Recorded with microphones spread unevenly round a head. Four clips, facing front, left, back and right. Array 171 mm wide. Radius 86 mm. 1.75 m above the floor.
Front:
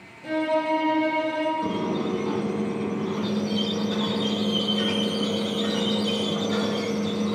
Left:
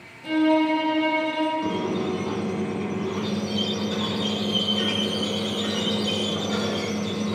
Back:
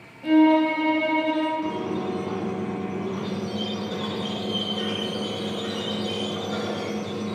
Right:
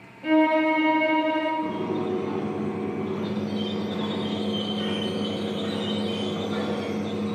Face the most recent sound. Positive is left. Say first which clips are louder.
# left 1 dB, front 1 dB
turn(degrees=25)